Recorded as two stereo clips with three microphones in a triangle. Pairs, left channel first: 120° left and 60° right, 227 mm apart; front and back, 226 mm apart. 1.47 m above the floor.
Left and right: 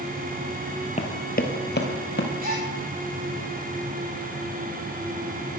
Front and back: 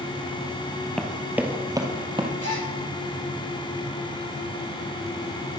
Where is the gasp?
10° right, 4.5 m.